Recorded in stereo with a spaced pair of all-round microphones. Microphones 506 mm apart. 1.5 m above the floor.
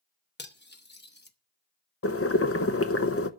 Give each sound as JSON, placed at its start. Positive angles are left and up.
{"t": 0.4, "sound": "cutlery clinking", "side_deg": 20, "distance_m": 0.9}
{"t": 2.0, "sound": "boiling", "side_deg": 30, "distance_m": 0.6}